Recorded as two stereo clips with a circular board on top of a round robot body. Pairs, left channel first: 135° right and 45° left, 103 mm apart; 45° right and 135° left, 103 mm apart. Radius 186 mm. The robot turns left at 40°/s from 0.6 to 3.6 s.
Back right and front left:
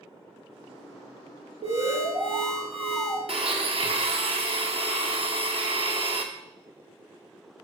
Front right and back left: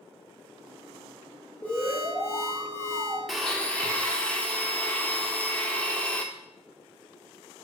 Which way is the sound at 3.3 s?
45° left.